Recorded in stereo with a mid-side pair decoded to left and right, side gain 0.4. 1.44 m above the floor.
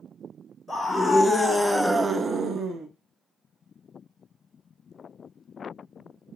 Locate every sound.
0.7 s a scream: 30° left, 1.1 m; by 2.9 s 75° right, 0.7 m